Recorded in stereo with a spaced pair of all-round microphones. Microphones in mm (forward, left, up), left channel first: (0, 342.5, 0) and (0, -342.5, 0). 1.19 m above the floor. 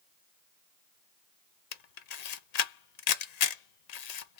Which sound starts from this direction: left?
A camera shutter, at 1.7 s.